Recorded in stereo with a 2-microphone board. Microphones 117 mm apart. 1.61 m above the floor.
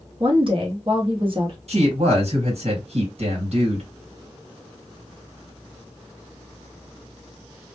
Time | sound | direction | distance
0.2 | a woman speaking | 45° right (ahead or behind) | 0.8 m
1.7 | a woman speaking | 65° right (ahead or behind) | 1.5 m